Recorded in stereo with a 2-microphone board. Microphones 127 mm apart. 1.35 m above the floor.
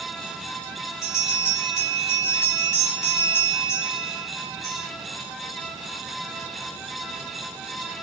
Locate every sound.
1.0 s a bell: 25° left (ahead or behind), 1.2 m